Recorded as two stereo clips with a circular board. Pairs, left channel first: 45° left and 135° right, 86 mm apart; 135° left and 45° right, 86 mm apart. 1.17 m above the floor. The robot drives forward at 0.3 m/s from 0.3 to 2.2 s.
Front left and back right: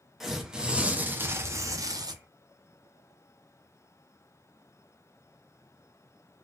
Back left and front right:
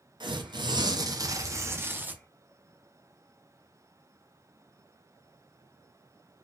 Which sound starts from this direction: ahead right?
Tearing paper, at 0.2 s.